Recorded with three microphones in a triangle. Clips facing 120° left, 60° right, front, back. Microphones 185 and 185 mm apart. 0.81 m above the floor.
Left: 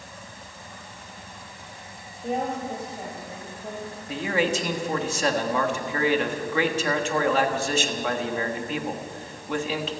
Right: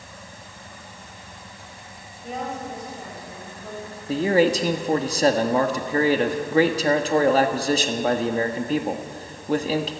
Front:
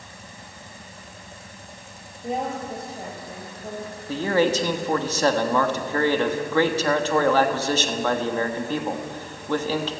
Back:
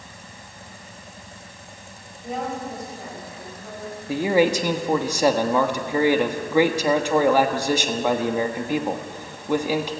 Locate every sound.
2.2 s a woman speaking: 65° left, 4 m; by 3.9 s 45° left, 4 m
4.1 s a man speaking: 105° right, 1.3 m